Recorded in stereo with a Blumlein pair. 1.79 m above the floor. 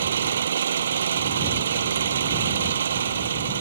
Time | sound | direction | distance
0.0 | an engine running | 65° right | ?